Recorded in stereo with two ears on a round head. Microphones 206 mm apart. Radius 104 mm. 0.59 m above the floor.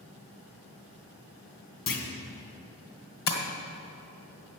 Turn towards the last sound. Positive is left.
turn(degrees=65)  # may be behind; listen again after turning